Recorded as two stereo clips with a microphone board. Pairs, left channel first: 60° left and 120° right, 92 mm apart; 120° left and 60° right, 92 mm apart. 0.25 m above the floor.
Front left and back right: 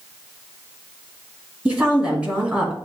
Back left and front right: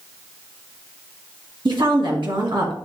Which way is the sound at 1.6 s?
50° right.